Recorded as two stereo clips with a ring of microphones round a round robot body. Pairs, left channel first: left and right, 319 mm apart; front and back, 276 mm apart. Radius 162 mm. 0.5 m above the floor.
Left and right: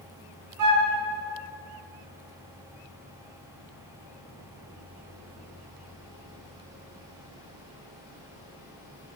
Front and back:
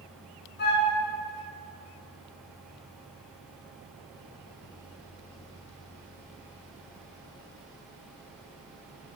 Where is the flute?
60° right, 3 m.